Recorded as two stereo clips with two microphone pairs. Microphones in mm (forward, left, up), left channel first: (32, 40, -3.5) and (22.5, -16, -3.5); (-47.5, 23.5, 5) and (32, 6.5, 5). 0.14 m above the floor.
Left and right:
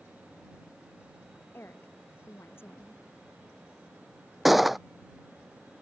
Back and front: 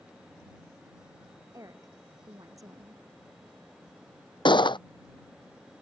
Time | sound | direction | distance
1.5 | a woman speaking | 35° left | ?
4.5 | a gunshot | 175° left | ?